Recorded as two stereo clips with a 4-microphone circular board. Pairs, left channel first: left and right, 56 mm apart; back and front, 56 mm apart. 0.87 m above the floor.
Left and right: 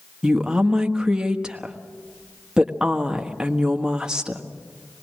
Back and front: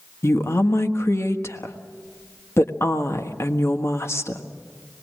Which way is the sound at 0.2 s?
165° right.